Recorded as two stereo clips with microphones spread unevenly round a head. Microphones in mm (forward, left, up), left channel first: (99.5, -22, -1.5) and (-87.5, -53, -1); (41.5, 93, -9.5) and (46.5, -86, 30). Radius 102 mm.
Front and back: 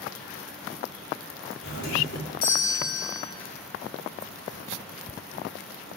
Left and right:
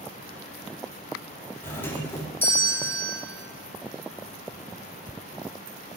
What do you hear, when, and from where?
1.6 s a doorbell: 15° left, 3 m